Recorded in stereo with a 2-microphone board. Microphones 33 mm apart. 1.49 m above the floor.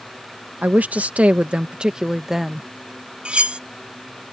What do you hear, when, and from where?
0.6 s a woman speaking: 60° right (ahead or behind); by 2.7 s 5° right (ahead or behind)
3.2 s cutlery clinking: 35° right (ahead or behind)